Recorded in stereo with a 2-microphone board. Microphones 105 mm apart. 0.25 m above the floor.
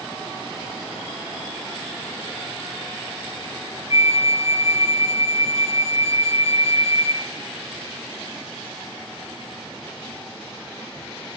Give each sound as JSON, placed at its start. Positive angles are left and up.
{"t": 3.9, "sound": "a flute", "side_deg": 65, "distance_m": 1.0}